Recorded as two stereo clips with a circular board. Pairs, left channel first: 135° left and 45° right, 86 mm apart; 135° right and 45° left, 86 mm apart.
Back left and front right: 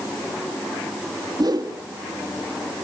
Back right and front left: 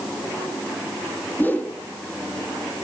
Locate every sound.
1.4 s a whoosh: 70° right, 1.5 m